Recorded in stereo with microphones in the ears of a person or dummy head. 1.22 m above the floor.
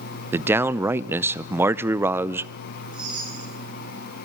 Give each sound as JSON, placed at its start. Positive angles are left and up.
{"t": 0.3, "sound": "a man speaking", "side_deg": -10, "distance_m": 0.5}
{"t": 2.9, "sound": "a chime", "side_deg": -5, "distance_m": 9.5}